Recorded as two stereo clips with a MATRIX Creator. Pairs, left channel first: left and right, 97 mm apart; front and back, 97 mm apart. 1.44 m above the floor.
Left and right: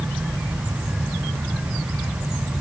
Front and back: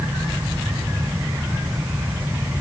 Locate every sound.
Only background noise.